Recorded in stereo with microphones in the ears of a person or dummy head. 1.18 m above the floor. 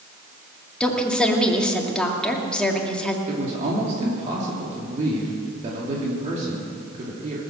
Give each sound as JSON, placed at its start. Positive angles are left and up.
{"t": 0.8, "sound": "a woman speaking", "side_deg": 5, "distance_m": 2.0}
{"t": 3.3, "sound": "a man speaking", "side_deg": -45, "distance_m": 2.5}